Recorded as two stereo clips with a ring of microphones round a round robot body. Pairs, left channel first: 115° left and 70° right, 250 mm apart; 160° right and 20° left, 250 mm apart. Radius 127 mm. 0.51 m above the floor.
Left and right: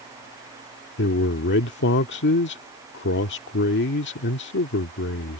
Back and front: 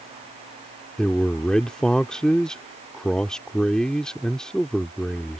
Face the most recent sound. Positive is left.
turn(degrees=115)